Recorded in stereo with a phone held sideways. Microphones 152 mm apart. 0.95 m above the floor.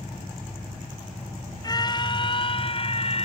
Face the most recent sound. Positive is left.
turn(degrees=40)  # may be behind; listen again after turning